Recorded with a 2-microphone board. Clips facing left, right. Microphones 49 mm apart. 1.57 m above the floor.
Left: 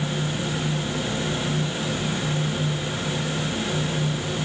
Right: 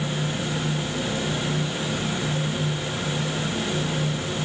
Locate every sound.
Only background noise.